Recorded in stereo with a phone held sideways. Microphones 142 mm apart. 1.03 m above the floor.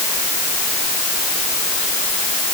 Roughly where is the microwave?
No microwave in this recording.